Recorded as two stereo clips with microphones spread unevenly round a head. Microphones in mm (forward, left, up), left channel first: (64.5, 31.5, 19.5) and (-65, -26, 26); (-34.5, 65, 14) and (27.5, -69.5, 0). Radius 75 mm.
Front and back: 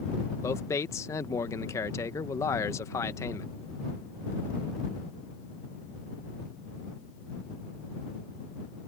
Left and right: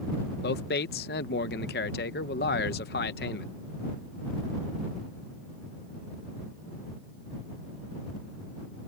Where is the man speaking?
95° left.